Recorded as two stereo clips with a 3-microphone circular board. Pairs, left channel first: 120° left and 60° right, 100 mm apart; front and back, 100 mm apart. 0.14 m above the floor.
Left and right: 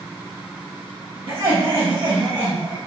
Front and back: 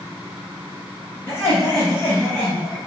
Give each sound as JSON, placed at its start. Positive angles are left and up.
{"t": 1.3, "sound": "laughter", "azimuth_deg": -55, "distance_m": 1.6}